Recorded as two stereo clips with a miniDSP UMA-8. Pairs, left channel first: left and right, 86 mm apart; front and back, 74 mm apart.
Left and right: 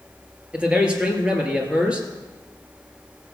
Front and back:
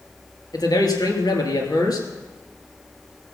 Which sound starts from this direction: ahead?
A man speaking, at 0.5 s.